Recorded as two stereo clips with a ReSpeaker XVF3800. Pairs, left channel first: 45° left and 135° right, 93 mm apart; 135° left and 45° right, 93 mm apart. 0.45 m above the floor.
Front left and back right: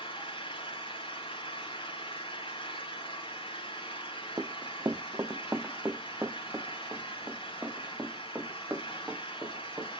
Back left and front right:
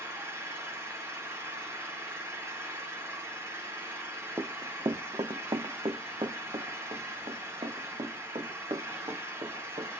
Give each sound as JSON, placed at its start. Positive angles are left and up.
{"t": 0.0, "sound": "an engine running", "azimuth_deg": 20, "distance_m": 4.0}
{"t": 4.4, "sound": "running footsteps", "azimuth_deg": -90, "distance_m": 0.7}